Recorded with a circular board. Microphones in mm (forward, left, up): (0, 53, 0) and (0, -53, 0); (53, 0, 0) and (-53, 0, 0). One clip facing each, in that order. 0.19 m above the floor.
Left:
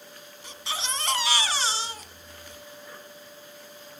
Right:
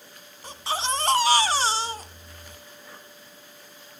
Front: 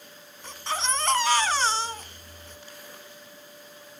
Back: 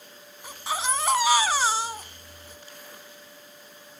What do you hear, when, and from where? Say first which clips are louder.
0.4 s a baby crying: right 6 dB, back 1 dB; 105° right, 0.8 m